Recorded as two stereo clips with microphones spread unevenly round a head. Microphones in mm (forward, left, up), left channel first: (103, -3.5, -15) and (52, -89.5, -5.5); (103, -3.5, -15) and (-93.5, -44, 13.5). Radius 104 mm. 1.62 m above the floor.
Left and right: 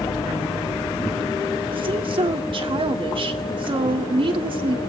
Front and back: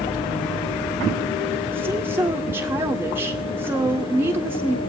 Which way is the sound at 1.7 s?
90° right.